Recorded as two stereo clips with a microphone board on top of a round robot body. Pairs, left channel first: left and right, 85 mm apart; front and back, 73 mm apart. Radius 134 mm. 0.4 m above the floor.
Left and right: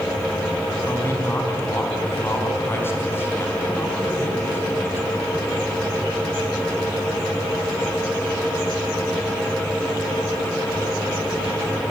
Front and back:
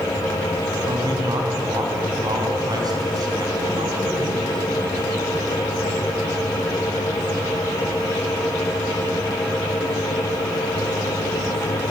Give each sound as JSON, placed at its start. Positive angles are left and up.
{"t": 0.9, "sound": "a man speaking", "azimuth_deg": 155, "distance_m": 4.5}